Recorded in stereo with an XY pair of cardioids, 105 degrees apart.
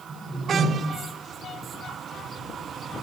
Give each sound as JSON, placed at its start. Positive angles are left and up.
{"t": 0.1, "sound": "a whoosh", "azimuth_deg": -20, "distance_m": 4.5}